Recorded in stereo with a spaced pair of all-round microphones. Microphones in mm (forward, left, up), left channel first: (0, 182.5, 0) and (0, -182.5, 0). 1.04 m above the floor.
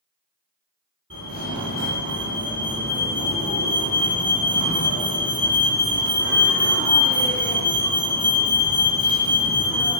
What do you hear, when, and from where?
1.1 s a fire alarm: 35° right (ahead or behind), 1.3 m